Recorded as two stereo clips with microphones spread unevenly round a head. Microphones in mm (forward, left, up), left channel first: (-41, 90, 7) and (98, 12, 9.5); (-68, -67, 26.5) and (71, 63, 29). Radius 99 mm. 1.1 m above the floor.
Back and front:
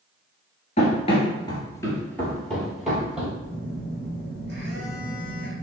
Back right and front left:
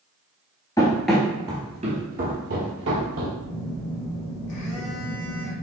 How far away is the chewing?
I don't hear chewing.